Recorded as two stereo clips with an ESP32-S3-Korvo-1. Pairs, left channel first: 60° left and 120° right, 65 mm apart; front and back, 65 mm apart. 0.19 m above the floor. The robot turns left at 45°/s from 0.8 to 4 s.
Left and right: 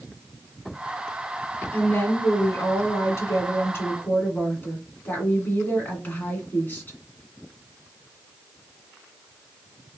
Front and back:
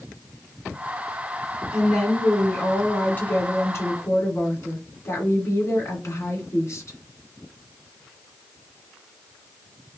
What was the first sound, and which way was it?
A woman speaking, 115° left.